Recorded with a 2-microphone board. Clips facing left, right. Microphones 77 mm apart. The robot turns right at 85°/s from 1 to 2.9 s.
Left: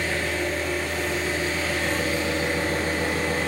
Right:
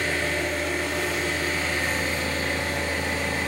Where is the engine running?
85° right, 3 m; by 3.5 s 75° left, 3 m.